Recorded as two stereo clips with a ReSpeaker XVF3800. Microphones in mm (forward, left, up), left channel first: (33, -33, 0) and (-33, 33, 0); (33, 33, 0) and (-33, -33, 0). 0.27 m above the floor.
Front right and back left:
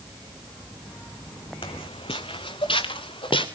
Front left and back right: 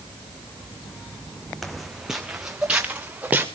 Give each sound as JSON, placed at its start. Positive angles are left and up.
{"t": 1.6, "sound": "footsteps", "azimuth_deg": -45, "distance_m": 1.3}